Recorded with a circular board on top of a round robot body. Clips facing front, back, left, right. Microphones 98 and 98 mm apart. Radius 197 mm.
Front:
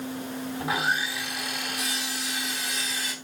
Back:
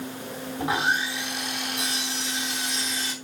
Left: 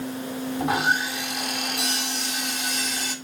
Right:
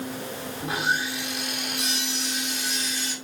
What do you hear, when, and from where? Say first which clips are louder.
0.6 s sawing: back 3 dB, left 3 dB; 120° left, 3 m